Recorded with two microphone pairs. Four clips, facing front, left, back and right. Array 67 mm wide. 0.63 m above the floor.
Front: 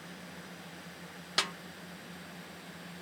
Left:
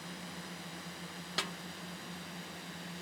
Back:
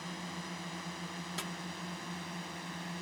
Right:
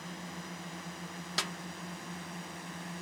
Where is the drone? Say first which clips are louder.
Right 2 dB, back 5 dB; 165° right; by 3.0 s 150° right.